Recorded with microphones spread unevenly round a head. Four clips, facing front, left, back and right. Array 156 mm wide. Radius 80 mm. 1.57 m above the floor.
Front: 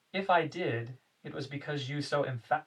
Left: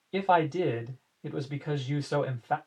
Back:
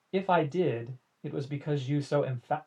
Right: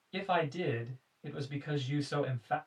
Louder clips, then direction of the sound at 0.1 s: Left 8 dB, back 2 dB; 150° left.